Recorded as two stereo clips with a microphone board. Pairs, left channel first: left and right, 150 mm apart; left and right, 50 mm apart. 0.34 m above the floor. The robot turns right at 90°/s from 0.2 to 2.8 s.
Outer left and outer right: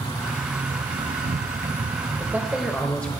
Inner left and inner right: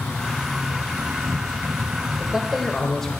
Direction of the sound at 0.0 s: 155° left.